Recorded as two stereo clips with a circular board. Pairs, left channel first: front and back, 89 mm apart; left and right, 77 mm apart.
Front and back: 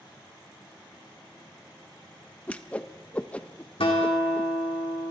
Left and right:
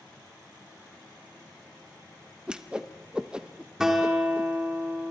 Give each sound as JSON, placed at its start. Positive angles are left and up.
{"t": 2.5, "sound": "a whoosh", "azimuth_deg": -35, "distance_m": 0.7}
{"t": 3.8, "sound": "a guitar", "azimuth_deg": -5, "distance_m": 3.0}